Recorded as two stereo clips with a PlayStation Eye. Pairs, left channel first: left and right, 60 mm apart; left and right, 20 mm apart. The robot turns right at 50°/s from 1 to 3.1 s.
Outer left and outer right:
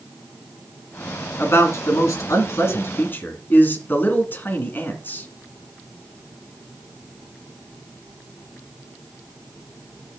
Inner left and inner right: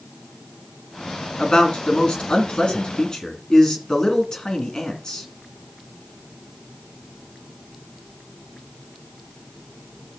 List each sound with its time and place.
1.4 s a man speaking: 50° left, 2.5 m; by 5.3 s 135° left, 2.5 m